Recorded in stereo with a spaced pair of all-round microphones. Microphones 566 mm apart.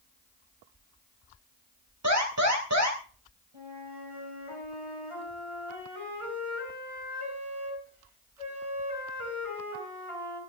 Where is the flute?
65° right (ahead or behind), 7 m.